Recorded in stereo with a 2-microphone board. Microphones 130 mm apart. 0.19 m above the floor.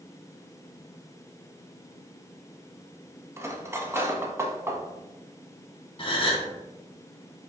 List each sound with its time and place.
3.4 s cutlery clinking: 20° right (ahead or behind), 0.7 m
6.0 s a gasp: 40° left (ahead or behind), 1.1 m